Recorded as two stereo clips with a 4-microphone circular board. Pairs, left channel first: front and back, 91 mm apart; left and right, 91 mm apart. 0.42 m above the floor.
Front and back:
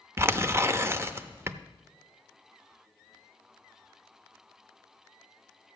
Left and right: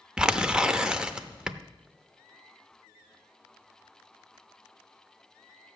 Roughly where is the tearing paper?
Behind.